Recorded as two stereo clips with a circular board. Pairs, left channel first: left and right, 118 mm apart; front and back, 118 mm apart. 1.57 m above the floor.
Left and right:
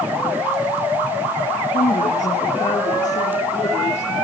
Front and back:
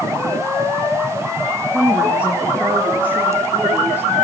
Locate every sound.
1.7 s a woman speaking: 100° left, 2 m; by 4.1 s 105° left, 4 m